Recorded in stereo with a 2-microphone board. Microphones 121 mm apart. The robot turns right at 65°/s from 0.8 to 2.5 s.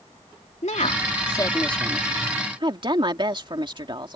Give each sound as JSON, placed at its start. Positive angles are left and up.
{"t": 0.6, "sound": "a woman speaking", "side_deg": 70}